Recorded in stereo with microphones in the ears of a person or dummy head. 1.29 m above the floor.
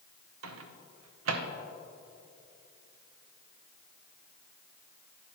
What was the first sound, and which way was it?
A microwave, 80° right.